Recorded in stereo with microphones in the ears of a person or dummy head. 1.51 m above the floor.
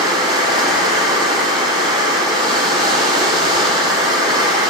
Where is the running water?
30° right (ahead or behind), 1.1 m.